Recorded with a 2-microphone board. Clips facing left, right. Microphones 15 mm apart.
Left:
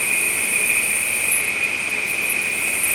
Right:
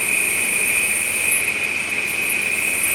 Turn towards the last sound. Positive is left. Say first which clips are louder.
# right 1 dB
turn(degrees=-65)  # may be behind; listen again after turning